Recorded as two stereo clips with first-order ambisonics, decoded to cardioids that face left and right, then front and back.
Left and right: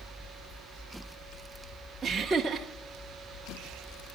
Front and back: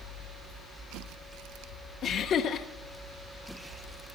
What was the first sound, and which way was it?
Laughter, 25° right.